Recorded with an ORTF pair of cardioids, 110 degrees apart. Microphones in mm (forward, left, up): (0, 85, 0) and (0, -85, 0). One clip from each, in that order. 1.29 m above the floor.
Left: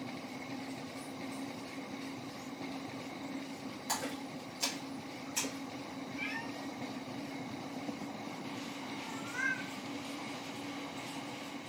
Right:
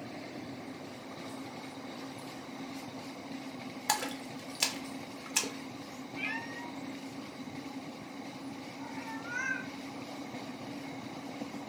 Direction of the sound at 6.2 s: 40° right.